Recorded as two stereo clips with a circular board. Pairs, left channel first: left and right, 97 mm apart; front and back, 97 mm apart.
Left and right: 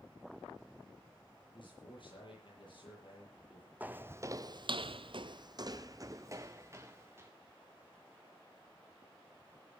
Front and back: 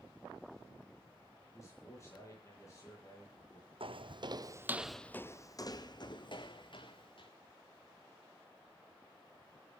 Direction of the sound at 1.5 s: 60° left.